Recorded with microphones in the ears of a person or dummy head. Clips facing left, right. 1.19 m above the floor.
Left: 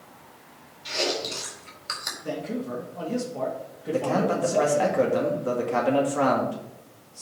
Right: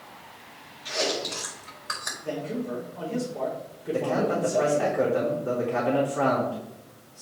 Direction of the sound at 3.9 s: 55° left (ahead or behind).